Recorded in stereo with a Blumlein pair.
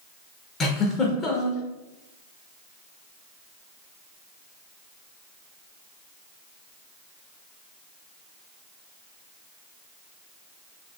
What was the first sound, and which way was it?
A giggle, 25° left.